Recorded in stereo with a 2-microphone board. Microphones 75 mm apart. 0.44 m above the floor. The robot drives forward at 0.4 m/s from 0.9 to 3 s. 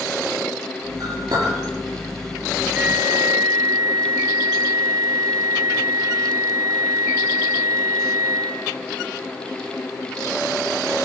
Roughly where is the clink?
Right.